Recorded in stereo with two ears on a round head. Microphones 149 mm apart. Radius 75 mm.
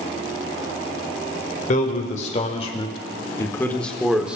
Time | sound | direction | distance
1.7 | a man speaking | 50° left (ahead or behind) | 2 m